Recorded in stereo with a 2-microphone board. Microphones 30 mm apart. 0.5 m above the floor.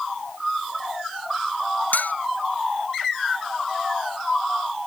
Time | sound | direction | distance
1.9 | cutlery clinking | 85° left | ?